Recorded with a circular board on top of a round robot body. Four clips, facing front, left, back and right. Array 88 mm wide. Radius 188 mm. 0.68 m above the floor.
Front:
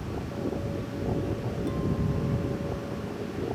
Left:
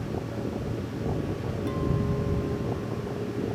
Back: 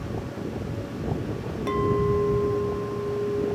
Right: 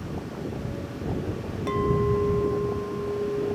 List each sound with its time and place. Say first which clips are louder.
1.7 s a clink: right 7 dB, back 9 dB; 145° right